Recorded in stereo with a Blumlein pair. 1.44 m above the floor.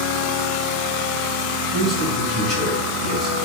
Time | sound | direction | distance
1.7 | a man speaking | 15° left | 1.7 m